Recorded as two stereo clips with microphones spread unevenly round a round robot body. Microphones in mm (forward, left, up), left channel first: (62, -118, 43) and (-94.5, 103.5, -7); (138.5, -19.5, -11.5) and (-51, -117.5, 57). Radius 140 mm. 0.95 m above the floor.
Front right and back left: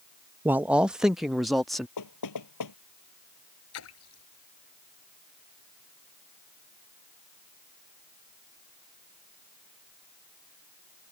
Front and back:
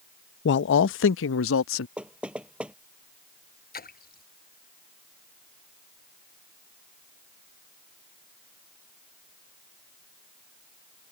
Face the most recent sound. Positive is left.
turn(degrees=-15)